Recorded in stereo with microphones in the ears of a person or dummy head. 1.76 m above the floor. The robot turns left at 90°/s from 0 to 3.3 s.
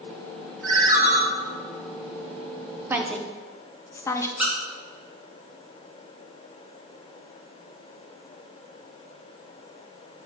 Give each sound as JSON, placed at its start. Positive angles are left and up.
{"t": 0.6, "sound": "a ringtone", "azimuth_deg": 0, "distance_m": 1.7}
{"t": 2.9, "sound": "a woman speaking", "side_deg": -15, "distance_m": 0.6}
{"t": 4.4, "sound": "a squeak", "side_deg": -5, "distance_m": 1.1}